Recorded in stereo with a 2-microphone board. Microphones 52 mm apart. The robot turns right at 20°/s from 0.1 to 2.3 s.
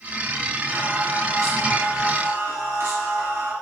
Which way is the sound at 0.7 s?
100° right.